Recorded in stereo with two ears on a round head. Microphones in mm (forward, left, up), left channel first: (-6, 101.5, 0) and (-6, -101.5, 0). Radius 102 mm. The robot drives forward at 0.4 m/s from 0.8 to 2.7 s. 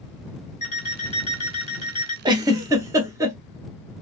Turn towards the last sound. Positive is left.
turn(degrees=-15)  # may be behind; listen again after turning